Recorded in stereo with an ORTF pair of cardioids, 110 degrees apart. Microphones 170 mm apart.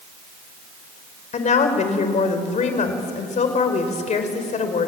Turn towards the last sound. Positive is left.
turn(degrees=45)